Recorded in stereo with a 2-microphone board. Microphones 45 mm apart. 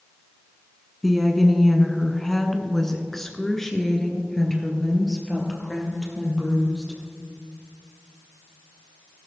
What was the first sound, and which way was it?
A woman speaking, centre (ahead or behind).